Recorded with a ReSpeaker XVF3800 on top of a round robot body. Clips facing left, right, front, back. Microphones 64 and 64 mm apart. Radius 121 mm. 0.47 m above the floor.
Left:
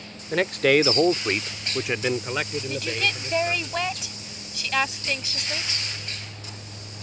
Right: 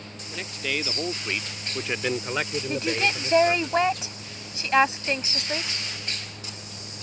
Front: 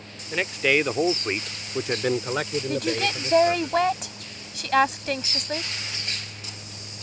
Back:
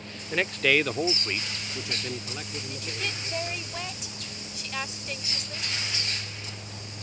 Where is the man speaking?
90° left; by 3.7 s 25° right.